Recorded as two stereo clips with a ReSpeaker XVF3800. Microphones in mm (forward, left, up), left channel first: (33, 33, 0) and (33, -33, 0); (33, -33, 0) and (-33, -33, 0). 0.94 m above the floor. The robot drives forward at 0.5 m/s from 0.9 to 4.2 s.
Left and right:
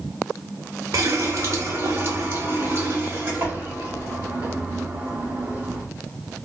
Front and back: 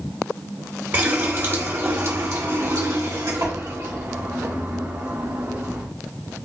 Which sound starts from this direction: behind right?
A running tap, at 0.9 s.